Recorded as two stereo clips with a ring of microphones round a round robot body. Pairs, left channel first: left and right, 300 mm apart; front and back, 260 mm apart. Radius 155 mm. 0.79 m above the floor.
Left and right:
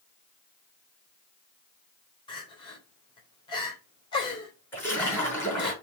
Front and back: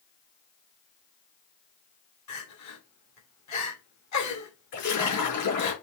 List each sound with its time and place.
2.3 s crying: 15° left, 3 m
4.7 s a splash: 10° left, 4.5 m